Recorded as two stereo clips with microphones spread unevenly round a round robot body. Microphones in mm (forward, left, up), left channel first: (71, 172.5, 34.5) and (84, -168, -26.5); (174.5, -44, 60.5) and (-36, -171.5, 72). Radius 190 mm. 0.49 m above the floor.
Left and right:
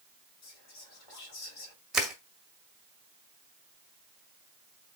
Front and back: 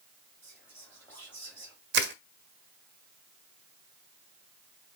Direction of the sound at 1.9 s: 165° right.